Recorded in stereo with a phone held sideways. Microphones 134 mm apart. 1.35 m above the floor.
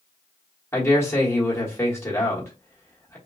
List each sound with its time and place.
0.7 s a man speaking: 20° left (ahead or behind), 1.1 m